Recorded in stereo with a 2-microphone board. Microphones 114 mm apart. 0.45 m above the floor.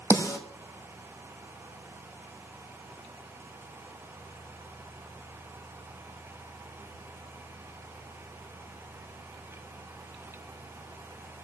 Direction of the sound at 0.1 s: 30° left (ahead or behind).